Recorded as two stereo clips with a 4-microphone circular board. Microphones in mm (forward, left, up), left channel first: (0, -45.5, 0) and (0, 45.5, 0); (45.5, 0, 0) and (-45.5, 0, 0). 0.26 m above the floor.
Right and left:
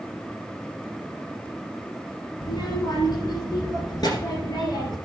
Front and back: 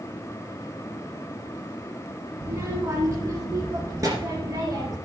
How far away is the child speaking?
About 1.5 m.